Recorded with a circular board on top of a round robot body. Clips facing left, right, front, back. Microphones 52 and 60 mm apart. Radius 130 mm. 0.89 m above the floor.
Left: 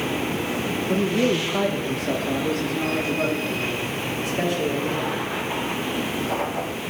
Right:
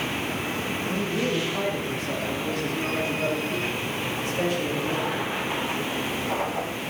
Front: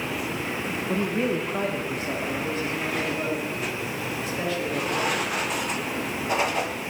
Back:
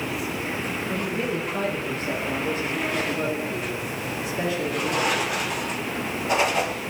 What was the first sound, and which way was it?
A man speaking, 50° left.